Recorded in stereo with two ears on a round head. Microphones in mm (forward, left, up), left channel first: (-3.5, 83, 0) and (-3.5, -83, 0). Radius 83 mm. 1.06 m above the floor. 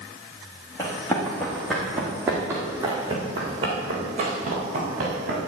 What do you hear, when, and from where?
0.8 s running footsteps: 15° left (ahead or behind), 4 m; by 5.4 s 50° right (ahead or behind), 6 m